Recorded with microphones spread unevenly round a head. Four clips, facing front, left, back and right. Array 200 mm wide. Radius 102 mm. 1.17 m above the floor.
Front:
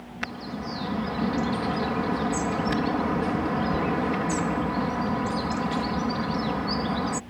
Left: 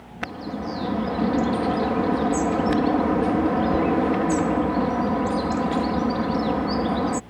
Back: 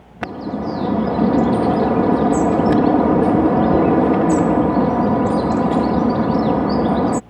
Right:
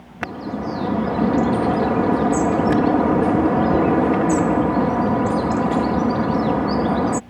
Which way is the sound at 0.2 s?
160° right.